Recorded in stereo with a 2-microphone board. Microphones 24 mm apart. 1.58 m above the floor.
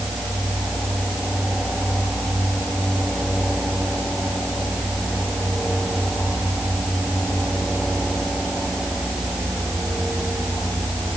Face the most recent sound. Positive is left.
No sound to turn to.